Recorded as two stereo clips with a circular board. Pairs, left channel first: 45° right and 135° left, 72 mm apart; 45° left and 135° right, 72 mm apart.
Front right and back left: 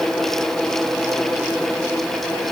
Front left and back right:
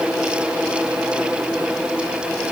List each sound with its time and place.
Only background noise.